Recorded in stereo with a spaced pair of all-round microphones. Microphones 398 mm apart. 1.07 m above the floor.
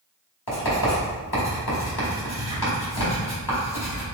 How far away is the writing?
About 1.8 m.